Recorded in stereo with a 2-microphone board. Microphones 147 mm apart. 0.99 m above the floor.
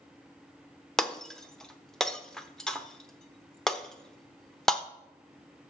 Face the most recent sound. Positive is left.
turn(degrees=5)  # may be behind; listen again after turning